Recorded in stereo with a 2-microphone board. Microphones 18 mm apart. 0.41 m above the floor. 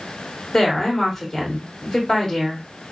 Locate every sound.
0.5 s a woman speaking: 25° left (ahead or behind), 1.5 m